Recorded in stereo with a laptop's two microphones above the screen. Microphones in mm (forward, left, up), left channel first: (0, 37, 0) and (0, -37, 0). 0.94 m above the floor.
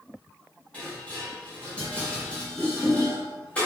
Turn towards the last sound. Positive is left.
turn(degrees=15)  # may be behind; listen again after turning